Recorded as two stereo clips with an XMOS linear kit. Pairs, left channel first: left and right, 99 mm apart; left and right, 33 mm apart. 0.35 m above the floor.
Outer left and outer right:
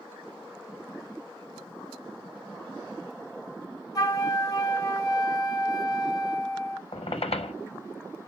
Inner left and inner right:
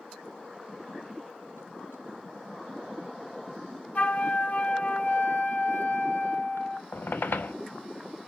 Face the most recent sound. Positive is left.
turn(degrees=80)